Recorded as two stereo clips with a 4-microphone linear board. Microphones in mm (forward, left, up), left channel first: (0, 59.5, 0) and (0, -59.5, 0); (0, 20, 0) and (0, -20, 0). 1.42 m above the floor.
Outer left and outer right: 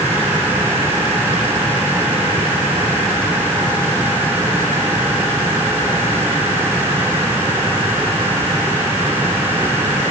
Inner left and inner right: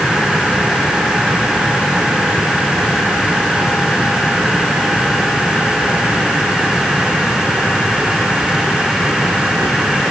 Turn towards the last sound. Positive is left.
No sound to turn to.